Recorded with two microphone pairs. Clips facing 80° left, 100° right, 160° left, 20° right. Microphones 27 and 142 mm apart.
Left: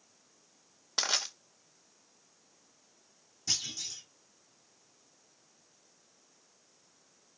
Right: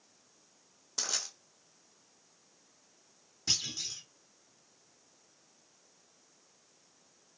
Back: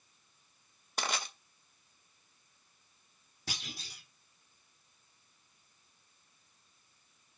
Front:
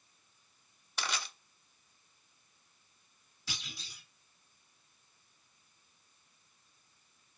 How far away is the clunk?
About 2.5 m.